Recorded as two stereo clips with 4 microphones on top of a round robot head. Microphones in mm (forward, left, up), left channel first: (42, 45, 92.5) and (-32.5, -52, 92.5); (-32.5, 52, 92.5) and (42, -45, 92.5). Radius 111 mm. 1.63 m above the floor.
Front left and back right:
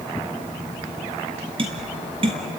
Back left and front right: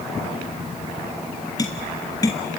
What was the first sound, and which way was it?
Tapping, 175° right.